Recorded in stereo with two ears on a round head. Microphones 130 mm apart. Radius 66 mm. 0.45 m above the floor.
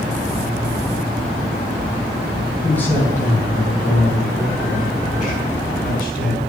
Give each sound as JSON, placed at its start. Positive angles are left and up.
{"t": 2.6, "sound": "a man speaking", "side_deg": 10, "distance_m": 4.5}